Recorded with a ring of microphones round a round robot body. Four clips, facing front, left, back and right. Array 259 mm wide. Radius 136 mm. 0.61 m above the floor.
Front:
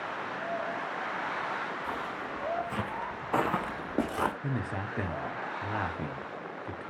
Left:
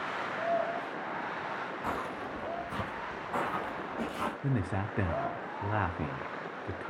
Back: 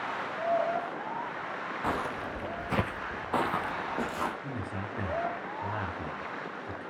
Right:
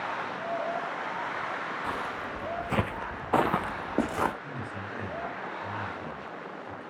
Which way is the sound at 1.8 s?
170° left.